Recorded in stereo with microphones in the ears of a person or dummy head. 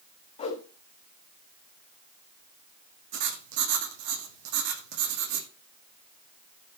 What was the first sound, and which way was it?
A whoosh, 35° left (ahead or behind).